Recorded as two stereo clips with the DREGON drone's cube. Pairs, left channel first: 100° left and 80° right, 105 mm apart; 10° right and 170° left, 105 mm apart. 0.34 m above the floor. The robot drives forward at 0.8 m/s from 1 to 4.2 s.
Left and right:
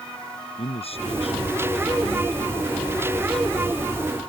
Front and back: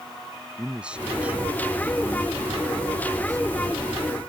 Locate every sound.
0.6 s a man speaking: 90° left; by 4.0 s 115° left